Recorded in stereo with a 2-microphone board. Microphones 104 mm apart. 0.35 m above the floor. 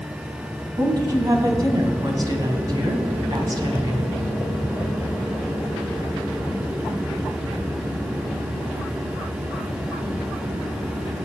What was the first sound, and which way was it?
A woman speaking, 40° right (ahead or behind).